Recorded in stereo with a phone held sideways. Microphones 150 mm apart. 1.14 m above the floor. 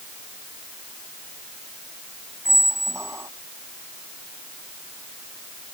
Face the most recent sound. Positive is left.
turn(degrees=-20)  # may be behind; listen again after turning